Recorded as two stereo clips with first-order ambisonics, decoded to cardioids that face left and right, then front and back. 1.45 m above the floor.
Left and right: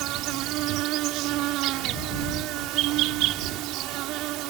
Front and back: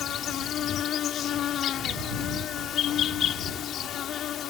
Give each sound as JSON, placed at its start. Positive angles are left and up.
{"t": 0.0, "sound": "an insect", "azimuth_deg": -55}